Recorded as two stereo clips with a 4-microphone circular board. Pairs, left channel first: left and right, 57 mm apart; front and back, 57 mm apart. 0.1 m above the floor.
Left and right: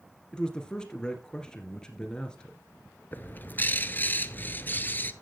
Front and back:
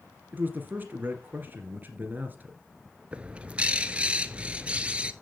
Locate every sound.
0.3 s a man speaking: 155° left, 2 m
3.1 s a bird: 120° left, 0.7 m